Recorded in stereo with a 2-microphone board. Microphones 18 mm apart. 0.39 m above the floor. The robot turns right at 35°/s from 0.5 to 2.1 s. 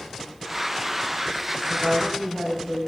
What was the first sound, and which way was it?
A woman speaking, 30° right (ahead or behind).